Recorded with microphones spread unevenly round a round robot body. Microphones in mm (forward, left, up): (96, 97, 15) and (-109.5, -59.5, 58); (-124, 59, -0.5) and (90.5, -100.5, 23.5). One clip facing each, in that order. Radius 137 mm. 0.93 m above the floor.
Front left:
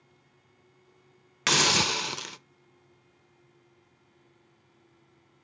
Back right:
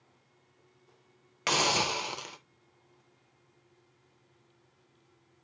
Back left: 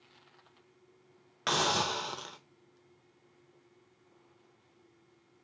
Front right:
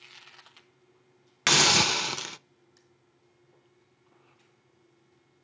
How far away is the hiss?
About 0.6 m.